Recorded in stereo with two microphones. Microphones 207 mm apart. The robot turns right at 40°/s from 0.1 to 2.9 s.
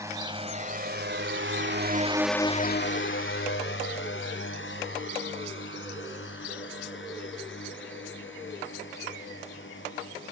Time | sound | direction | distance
0.0 | a drone | 15° right (ahead or behind) | ?